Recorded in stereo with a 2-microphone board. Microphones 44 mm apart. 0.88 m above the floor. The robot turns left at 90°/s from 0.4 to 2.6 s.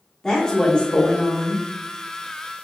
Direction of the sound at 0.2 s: 15° left (ahead or behind).